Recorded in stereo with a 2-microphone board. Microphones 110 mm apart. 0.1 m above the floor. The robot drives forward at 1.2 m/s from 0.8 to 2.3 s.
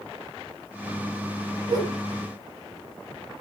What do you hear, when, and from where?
1.7 s a whoosh: 40° right (ahead or behind), 1.8 m; by 2.0 s 35° right (ahead or behind), 2 m